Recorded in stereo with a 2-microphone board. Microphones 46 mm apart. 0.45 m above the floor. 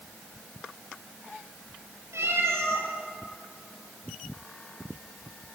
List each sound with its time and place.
2.1 s a cat meowing: 80° right, 6 m